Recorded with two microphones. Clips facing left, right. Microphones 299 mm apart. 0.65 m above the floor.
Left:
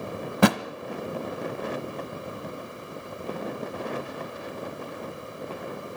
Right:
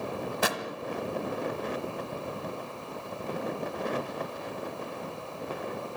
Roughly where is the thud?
Left.